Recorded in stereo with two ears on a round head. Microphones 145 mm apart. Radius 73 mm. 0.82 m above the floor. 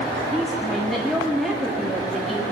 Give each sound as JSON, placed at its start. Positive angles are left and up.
{"t": 0.3, "sound": "a woman speaking", "side_deg": 0, "distance_m": 1.6}